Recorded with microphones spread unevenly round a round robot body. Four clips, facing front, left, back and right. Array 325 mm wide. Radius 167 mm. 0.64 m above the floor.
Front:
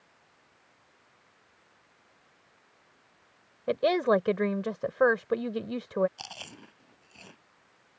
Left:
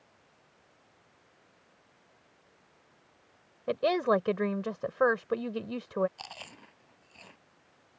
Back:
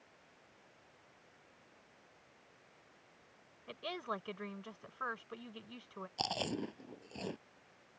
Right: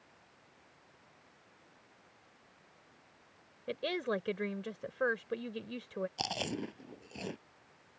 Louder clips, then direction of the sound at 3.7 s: Left 9 dB, front 19 dB; 30° left.